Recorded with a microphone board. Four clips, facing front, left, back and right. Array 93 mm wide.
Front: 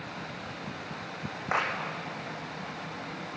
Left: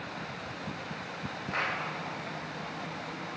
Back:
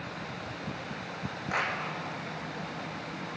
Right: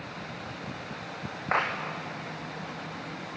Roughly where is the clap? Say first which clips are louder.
Right 6 dB, front 2 dB; ahead right.